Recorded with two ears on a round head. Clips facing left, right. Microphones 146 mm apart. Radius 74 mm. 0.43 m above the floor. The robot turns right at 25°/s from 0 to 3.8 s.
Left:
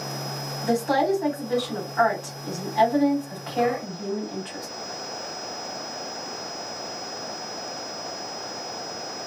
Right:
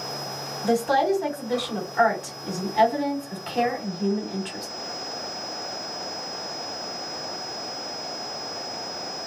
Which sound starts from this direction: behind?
A woman speaking, at 0.6 s.